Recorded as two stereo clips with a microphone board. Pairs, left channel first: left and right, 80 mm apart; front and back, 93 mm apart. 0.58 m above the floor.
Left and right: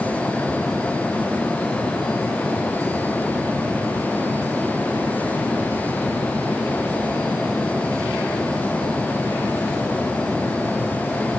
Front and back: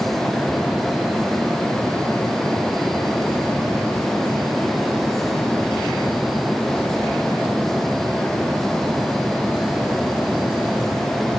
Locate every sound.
Only background noise.